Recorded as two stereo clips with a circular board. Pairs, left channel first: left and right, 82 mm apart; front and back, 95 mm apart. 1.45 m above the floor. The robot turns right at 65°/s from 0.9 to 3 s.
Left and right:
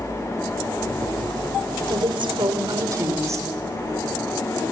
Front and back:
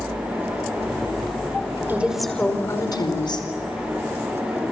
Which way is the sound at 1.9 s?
110° right.